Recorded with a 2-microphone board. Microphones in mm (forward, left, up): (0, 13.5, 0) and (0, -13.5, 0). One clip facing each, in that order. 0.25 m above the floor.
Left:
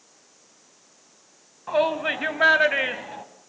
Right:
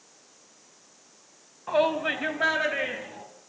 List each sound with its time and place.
1.7 s a shout: centre (ahead or behind), 2.0 m; by 3.2 s 45° left (ahead or behind), 2.0 m